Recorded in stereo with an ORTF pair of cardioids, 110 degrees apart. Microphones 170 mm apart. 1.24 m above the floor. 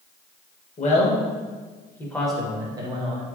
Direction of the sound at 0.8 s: 45° left.